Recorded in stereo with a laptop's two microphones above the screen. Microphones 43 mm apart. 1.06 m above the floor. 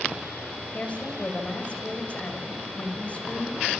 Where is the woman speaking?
30° left (ahead or behind), 5.5 m.